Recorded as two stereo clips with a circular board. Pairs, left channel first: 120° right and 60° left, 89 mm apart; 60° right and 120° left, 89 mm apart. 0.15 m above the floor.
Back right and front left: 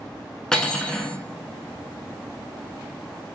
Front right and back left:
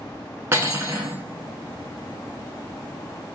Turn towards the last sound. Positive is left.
turn(degrees=160)